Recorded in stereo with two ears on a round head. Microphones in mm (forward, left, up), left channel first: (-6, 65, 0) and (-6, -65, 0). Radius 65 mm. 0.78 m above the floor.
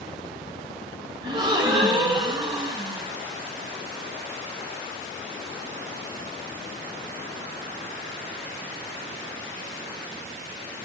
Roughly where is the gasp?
Right.